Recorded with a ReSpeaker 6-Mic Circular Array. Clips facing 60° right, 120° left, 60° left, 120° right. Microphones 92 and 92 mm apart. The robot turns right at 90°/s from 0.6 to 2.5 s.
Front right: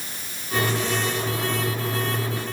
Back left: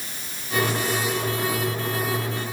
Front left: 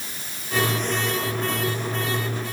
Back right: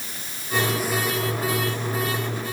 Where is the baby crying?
I don't hear a baby crying.